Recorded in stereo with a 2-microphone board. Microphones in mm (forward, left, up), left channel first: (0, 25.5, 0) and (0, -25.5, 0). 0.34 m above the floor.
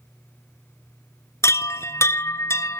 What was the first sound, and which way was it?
A chime, 65° left (ahead or behind).